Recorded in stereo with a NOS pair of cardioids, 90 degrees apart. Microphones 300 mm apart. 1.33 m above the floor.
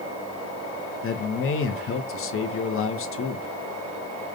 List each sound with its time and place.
1.0 s a man speaking: 45° left, 0.8 m